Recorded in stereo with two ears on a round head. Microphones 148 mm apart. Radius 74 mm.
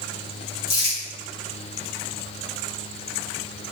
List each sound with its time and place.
0.7 s crumpling: 65° left (ahead or behind), 1.5 m